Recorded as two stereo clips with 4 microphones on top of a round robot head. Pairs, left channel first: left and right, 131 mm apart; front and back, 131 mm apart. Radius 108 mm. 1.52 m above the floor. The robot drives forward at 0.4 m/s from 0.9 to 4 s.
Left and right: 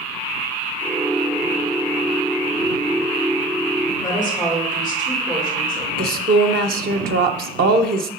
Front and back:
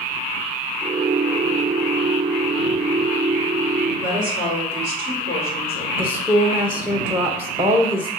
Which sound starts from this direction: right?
A woman speaking, at 6.0 s.